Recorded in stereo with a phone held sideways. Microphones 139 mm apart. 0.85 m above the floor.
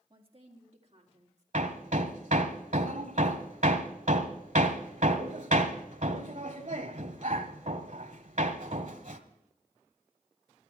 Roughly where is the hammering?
Right.